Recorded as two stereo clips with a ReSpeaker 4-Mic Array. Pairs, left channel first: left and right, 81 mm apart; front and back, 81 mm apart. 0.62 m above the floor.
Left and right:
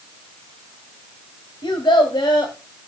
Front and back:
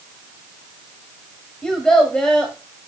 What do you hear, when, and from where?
1.6 s a child speaking: 80° left, 1.6 m